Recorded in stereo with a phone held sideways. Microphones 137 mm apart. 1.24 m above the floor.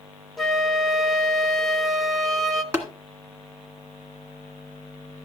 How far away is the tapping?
About 1.7 m.